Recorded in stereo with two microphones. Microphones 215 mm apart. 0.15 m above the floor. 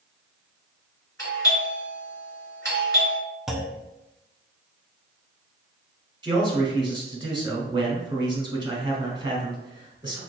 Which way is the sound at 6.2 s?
20° right (ahead or behind).